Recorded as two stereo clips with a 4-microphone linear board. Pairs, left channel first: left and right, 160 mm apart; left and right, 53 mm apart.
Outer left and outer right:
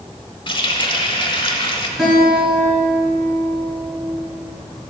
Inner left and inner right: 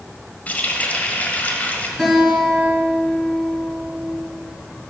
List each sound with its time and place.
0.5 s a running tap: 30° left (ahead or behind), 1.0 m
2.0 s a guitar: centre (ahead or behind), 3.5 m